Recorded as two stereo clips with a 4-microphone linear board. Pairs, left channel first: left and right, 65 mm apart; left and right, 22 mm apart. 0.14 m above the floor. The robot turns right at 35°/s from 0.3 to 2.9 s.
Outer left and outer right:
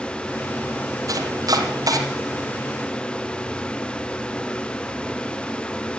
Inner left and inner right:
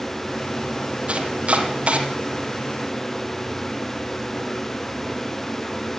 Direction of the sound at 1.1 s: 70° right (ahead or behind).